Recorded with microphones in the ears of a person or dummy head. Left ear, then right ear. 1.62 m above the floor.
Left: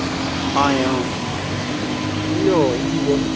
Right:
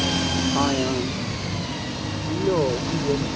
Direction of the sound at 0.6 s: 75° left (ahead or behind).